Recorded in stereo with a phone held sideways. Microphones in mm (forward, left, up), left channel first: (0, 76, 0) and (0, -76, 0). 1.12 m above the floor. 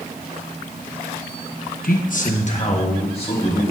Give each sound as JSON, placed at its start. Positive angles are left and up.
{"t": 1.8, "sound": "a man speaking", "side_deg": 65, "distance_m": 0.9}